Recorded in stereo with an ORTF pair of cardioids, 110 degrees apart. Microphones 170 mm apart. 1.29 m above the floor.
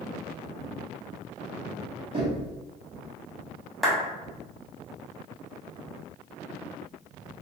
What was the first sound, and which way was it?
Knocking, 35° right.